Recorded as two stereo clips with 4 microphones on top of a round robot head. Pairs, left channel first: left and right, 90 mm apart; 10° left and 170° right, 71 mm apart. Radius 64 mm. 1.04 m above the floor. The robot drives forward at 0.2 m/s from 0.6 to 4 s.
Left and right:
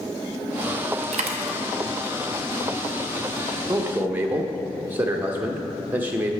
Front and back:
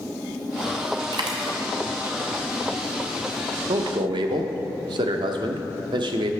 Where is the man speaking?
160° right, 0.6 m; by 6.3 s 165° right, 0.6 m.